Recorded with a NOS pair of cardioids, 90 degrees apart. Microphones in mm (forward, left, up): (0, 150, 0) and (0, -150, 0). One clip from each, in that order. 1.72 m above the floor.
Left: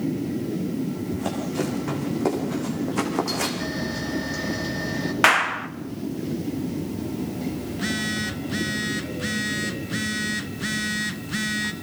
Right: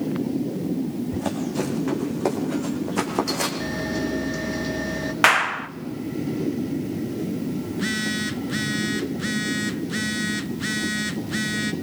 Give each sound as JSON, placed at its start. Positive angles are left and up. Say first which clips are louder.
{"t": 1.1, "sound": "running footsteps", "louder": "right 1 dB", "azimuth_deg": -15, "distance_m": 6.5}
{"t": 3.6, "sound": "a camera shutter", "louder": "right 2 dB", "azimuth_deg": -15, "distance_m": 9.5}
{"t": 5.2, "sound": "a clap", "louder": "even", "azimuth_deg": -5, "distance_m": 1.3}
{"t": 7.7, "sound": "a phone buzzing", "louder": "right 1 dB", "azimuth_deg": -15, "distance_m": 1.6}